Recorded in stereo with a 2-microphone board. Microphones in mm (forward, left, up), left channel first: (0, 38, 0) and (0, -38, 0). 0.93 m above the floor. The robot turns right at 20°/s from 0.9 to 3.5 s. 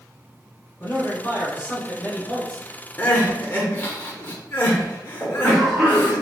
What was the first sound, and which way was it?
A man speaking, 140° left.